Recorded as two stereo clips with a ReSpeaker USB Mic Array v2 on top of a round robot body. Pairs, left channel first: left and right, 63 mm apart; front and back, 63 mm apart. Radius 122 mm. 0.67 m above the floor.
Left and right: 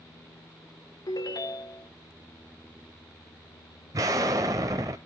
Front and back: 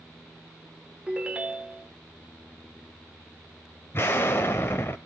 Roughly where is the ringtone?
Left.